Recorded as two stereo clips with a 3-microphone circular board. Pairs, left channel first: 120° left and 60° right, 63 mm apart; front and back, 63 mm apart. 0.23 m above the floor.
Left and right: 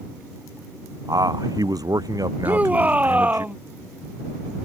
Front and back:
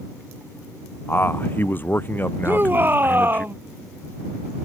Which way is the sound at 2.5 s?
125° right.